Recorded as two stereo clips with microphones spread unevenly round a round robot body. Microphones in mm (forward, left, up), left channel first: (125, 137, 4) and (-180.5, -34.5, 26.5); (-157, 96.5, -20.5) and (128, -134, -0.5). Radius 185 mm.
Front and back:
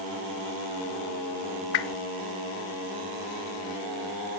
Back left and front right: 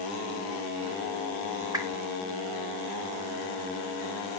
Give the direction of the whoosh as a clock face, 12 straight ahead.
11 o'clock.